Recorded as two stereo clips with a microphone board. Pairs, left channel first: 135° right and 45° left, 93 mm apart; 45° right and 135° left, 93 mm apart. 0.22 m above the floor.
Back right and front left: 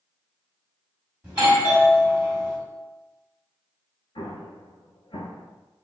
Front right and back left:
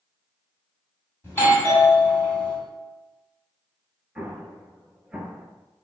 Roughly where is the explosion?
Behind right.